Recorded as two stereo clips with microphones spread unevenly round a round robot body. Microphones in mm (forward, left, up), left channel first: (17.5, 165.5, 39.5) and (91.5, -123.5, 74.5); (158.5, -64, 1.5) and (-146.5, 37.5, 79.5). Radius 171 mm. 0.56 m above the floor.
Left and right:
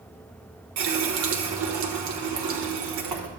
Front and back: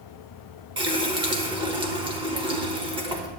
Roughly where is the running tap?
Behind right.